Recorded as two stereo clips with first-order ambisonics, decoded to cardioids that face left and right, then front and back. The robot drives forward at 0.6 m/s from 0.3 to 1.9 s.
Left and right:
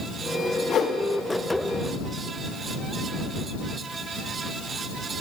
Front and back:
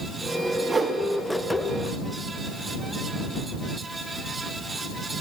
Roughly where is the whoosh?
Left.